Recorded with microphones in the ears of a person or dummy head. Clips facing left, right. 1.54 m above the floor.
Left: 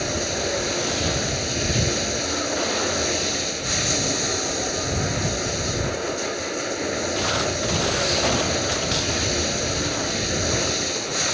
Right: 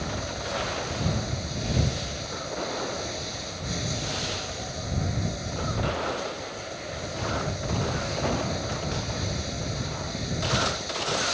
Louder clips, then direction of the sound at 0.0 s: Left 7 dB; 75° left (ahead or behind).